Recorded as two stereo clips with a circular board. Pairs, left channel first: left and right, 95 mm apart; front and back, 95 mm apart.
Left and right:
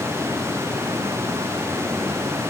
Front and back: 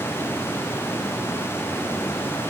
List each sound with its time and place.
Only background noise.